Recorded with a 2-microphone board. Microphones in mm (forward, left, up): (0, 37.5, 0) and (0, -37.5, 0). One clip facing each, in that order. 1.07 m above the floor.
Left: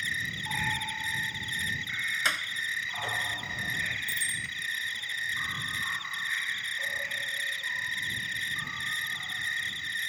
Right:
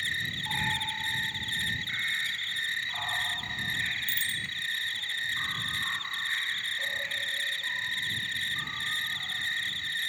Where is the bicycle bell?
35° left (ahead or behind).